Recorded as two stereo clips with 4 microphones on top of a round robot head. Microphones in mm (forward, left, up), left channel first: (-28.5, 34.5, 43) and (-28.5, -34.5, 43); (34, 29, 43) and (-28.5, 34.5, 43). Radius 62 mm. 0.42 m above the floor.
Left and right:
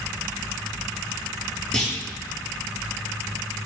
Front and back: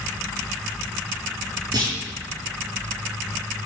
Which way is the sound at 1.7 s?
165° left.